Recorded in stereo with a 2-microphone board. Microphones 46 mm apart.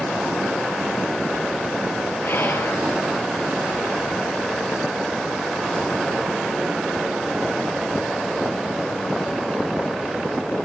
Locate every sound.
2.2 s whispering: 50° left (ahead or behind), 5.5 m